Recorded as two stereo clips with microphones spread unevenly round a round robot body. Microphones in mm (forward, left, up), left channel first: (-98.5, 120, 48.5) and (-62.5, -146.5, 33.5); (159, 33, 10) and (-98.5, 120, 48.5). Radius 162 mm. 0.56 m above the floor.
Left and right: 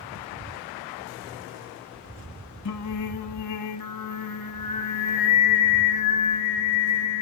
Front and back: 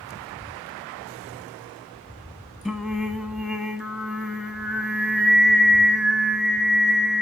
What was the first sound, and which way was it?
Singing, 75° left.